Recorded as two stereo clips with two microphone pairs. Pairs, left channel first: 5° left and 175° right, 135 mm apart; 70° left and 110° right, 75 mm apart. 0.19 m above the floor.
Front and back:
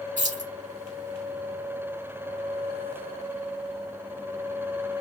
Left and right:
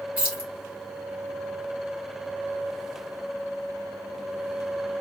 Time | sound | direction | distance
0.2 | keys jangling | straight behind | 1.8 m